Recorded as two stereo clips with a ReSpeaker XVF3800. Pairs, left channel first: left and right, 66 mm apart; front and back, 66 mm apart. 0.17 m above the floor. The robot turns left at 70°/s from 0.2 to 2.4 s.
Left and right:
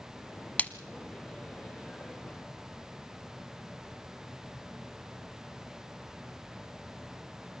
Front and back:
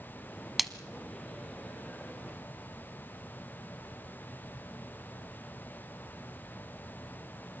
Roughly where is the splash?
Left.